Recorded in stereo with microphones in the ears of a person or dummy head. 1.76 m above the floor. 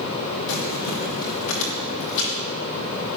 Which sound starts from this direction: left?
Crumpling, at 0.5 s.